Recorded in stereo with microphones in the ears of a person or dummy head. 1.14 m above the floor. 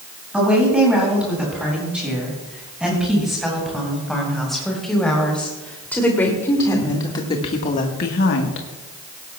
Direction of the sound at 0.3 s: 5° right (ahead or behind).